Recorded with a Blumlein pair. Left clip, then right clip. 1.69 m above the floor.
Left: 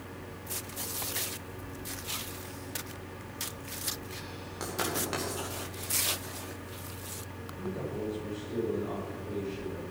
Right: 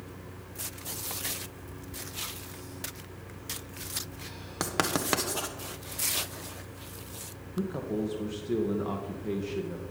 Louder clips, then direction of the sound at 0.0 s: Left 2 dB; 60° left.